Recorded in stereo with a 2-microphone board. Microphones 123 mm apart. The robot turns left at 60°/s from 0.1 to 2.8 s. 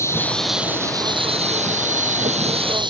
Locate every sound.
0.0 s an insect: 20° left; by 2.9 s 140° right